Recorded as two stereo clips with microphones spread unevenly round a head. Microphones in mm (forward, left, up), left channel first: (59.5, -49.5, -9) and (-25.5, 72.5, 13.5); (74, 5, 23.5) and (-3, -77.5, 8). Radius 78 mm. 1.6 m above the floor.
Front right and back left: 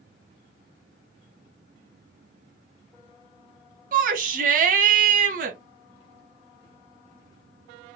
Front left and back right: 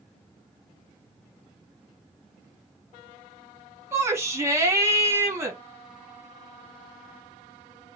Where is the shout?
150° left, 1.1 m.